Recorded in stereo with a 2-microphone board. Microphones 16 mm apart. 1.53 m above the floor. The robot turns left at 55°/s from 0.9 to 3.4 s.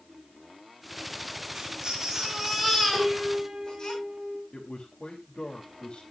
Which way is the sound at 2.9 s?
35° right (ahead or behind).